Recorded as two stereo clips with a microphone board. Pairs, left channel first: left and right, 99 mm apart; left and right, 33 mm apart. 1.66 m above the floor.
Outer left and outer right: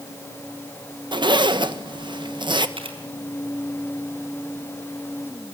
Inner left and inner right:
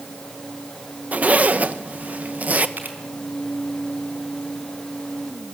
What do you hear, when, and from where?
1.1 s a zipper: 55° right (ahead or behind), 1.5 m
2.8 s a camera shutter: 75° right (ahead or behind), 4.5 m